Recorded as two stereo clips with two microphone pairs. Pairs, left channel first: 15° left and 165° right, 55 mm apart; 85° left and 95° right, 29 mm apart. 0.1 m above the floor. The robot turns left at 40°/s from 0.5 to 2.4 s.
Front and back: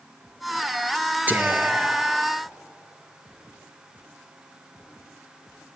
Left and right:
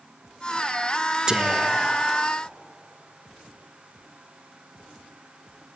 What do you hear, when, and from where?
1.3 s whispering: 140° right, 1.5 m; by 2.3 s straight behind, 1.5 m